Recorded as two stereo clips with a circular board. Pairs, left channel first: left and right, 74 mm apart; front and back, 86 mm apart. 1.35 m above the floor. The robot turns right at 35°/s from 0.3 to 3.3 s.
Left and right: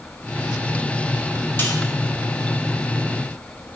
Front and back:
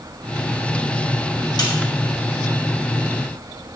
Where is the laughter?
No laughter in this recording.